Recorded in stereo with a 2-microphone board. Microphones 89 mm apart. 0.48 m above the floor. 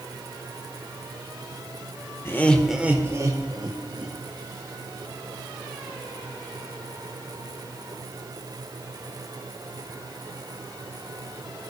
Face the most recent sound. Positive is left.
turn(degrees=-60)  # may be behind; listen again after turning